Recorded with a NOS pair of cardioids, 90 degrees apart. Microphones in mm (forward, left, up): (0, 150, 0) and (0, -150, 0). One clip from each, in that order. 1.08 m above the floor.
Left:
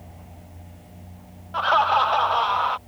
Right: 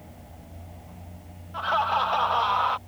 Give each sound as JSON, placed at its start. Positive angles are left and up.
{"t": 1.5, "sound": "laughter", "azimuth_deg": 40}